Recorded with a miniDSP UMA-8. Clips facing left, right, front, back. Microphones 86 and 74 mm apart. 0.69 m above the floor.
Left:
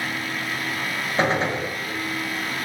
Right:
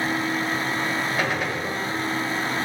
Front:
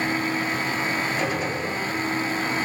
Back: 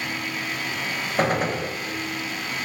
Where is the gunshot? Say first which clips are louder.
Left 3 dB, back 3 dB; 150° left, 1.6 m.